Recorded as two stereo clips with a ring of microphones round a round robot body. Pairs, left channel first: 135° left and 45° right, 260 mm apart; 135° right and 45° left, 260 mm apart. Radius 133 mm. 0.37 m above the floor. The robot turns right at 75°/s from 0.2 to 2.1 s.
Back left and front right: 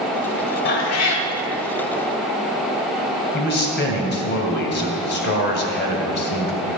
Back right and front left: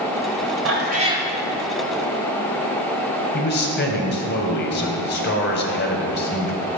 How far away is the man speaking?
About 2 m.